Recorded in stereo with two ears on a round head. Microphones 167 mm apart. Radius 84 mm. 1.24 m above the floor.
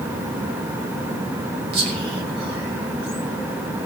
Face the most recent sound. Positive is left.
turn(degrees=-65)  # may be behind; listen again after turning